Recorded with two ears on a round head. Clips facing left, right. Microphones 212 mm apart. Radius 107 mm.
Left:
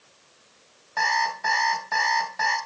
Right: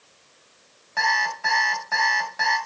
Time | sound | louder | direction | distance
1.0 | an alarm clock | even | 10° right (ahead or behind) | 3.5 m